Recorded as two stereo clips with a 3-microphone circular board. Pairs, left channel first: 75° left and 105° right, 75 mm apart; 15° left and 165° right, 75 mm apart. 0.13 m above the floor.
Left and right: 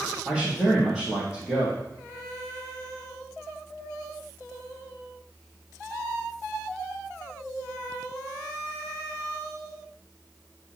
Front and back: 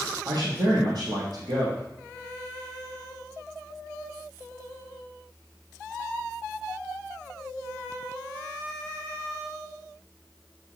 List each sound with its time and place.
0.2 s a man speaking: 165° left, 2.5 m